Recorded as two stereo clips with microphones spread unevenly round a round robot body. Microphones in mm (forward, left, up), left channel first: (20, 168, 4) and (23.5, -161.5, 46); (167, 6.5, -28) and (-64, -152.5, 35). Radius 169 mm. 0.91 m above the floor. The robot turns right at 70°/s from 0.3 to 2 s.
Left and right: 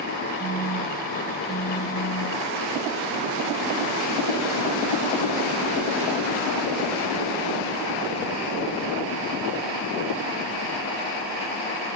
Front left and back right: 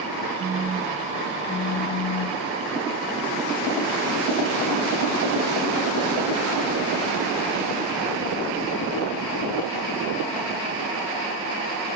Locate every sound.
0.4 s a phone buzzing: 110° right, 0.7 m; by 2.4 s 5° left, 0.7 m